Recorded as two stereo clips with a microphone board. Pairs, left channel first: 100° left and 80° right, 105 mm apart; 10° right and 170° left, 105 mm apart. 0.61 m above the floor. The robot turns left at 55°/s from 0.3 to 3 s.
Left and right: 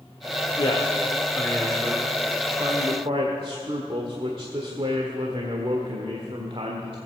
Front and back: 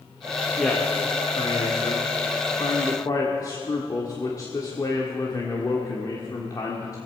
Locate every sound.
0.6 s a man speaking: 70° left, 1.5 m; by 7.0 s 60° right, 1.5 m